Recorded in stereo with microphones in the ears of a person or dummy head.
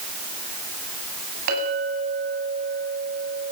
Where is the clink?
55° right (ahead or behind), 9.5 m.